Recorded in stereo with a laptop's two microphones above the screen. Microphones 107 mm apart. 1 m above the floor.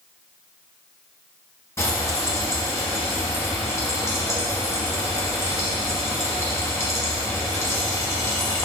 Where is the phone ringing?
No phone ringing in this recording.